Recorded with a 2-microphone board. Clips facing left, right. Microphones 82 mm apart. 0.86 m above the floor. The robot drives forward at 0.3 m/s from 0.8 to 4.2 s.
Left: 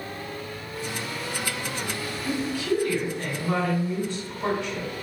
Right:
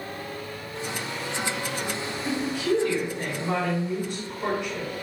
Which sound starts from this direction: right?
A woman speaking, at 2.2 s.